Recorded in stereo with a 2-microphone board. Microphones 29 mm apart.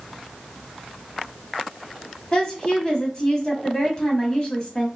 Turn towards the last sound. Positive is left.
turn(degrees=25)  # may be behind; listen again after turning